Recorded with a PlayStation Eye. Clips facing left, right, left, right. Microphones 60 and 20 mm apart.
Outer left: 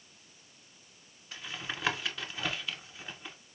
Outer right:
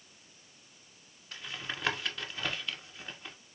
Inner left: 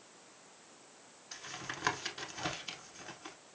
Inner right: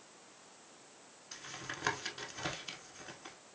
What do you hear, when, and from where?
1.3 s tapping: 5° left (ahead or behind), 0.7 m